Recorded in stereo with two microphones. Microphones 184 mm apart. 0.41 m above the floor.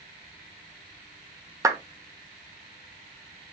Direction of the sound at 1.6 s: 20° right (ahead or behind).